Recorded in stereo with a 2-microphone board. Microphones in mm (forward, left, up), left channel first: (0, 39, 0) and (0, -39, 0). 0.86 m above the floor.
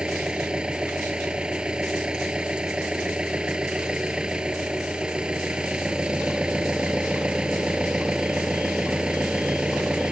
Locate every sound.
0.0 s an engine running: 10° right (ahead or behind)